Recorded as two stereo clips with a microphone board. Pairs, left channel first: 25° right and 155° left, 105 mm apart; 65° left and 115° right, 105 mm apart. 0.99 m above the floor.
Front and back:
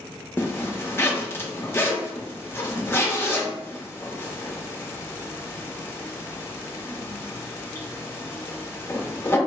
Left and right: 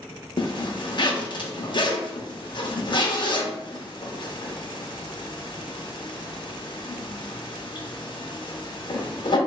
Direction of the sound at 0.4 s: 40° left.